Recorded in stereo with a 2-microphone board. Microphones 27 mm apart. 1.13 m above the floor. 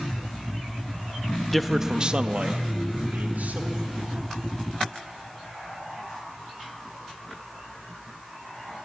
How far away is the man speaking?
About 1.2 m.